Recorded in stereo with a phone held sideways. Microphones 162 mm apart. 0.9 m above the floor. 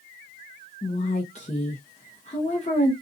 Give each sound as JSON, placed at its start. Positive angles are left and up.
{"t": 0.8, "sound": "a woman speaking", "side_deg": 40, "distance_m": 0.8}